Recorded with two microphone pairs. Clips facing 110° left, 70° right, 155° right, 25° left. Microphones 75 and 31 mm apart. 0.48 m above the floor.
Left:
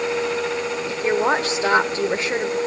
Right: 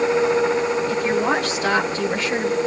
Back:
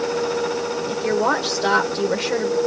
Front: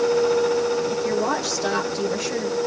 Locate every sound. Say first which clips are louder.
0.9 s a woman speaking: even, back 2 dB; 170° left, 1.8 m